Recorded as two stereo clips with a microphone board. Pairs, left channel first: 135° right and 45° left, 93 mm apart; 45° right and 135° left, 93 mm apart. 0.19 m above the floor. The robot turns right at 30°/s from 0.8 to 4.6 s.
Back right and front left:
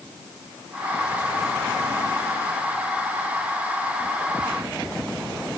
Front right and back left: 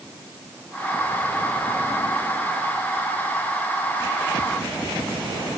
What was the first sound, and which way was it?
Only background noise.